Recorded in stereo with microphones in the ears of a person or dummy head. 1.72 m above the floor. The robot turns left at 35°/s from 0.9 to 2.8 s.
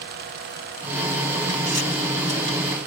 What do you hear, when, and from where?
Only background noise.